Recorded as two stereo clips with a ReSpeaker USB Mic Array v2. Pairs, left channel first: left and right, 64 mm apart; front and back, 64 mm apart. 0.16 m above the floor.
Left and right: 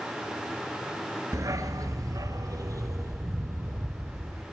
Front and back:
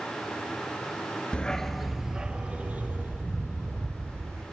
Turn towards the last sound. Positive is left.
turn(degrees=-130)